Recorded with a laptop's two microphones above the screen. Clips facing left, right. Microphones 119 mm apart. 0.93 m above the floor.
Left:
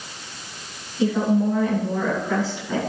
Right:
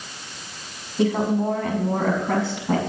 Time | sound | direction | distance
1.0 | a woman speaking | 55° right (ahead or behind) | 6 m